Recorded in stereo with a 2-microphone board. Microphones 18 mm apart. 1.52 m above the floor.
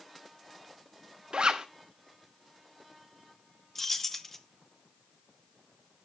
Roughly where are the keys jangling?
Centre.